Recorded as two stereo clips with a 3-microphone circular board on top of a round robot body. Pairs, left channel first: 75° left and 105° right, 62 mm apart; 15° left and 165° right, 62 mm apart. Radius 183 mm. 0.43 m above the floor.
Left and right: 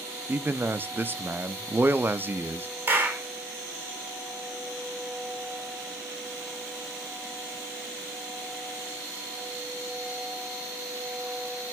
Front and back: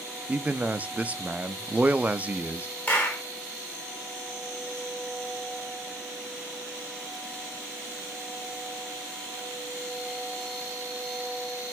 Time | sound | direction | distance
0.3 | a man speaking | 120° right | 0.9 m
2.9 | a clap | 40° right | 3 m